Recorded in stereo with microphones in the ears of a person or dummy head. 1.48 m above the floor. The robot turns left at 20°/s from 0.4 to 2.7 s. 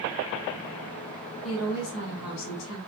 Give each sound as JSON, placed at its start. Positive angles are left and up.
{"t": 1.4, "sound": "a woman speaking", "side_deg": 75, "distance_m": 1.0}